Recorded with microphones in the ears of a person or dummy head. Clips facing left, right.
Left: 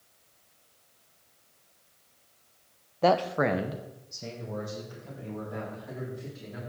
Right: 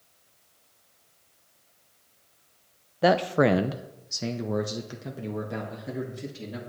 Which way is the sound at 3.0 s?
10° right (ahead or behind).